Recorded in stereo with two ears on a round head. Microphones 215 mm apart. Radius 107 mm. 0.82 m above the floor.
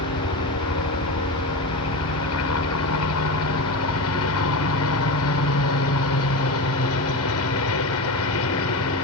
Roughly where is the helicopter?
Left.